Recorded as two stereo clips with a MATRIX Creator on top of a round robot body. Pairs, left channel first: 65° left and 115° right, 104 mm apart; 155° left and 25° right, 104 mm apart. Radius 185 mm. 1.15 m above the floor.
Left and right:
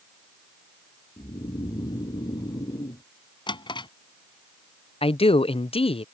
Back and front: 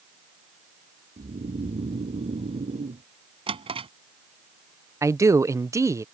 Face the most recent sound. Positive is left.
turn(degrees=40)